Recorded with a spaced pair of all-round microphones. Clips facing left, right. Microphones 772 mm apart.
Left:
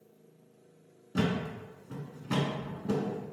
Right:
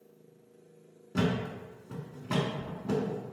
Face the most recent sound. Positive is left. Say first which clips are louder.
# right 1 dB
turn(degrees=-10)  # may be behind; listen again after turning